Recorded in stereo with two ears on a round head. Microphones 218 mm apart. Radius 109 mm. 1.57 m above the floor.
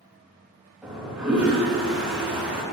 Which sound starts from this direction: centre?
A toilet flushing, at 0.8 s.